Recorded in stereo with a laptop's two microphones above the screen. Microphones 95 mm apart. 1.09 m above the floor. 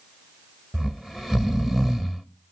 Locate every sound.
0.7 s snoring: centre (ahead or behind), 0.8 m